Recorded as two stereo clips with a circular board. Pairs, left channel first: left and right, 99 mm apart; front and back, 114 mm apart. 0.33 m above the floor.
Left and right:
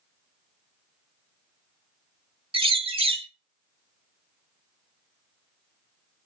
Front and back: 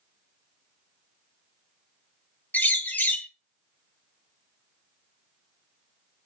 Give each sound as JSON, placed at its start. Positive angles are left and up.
{"t": 2.5, "sound": "a bird", "azimuth_deg": -75, "distance_m": 0.5}